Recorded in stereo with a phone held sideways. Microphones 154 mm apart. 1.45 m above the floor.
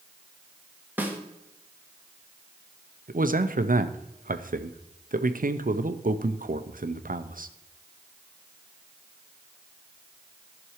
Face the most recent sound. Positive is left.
turn(degrees=-65)  # may be behind; listen again after turning